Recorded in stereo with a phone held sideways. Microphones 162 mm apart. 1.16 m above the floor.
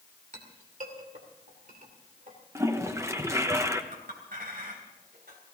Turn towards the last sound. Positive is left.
turn(degrees=-65)  # may be behind; listen again after turning